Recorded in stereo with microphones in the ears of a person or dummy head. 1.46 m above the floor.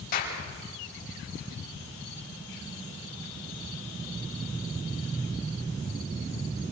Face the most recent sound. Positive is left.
turn(degrees=50)  # may be behind; listen again after turning